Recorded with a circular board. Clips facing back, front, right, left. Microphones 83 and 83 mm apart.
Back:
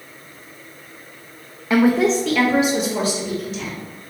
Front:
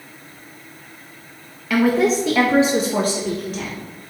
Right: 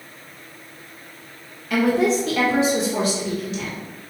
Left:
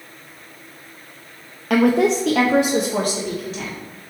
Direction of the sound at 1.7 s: 115° left.